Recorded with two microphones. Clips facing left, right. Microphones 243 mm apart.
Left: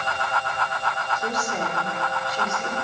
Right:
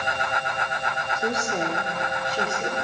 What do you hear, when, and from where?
1.1 s a woman speaking: 25° right (ahead or behind), 4 m; by 2.8 s 35° right (ahead or behind), 5 m